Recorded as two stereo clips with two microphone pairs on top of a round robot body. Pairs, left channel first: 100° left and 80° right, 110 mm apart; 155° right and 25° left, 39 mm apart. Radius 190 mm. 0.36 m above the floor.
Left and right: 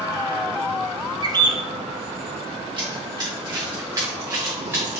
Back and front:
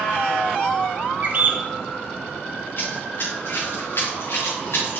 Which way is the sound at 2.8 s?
130° right.